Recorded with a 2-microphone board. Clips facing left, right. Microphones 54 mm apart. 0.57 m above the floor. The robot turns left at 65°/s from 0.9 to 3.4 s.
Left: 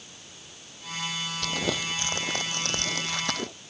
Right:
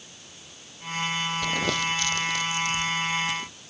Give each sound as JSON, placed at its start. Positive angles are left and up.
{"t": 1.4, "sound": "crumpling", "side_deg": -15}